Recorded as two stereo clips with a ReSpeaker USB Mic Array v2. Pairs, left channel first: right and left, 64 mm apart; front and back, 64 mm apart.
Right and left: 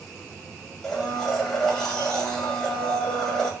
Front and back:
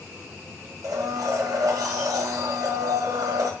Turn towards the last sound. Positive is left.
turn(degrees=-175)